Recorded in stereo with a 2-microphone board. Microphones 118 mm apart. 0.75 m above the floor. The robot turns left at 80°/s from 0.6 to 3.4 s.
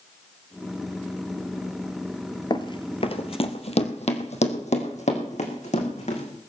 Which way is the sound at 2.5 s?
40° left (ahead or behind).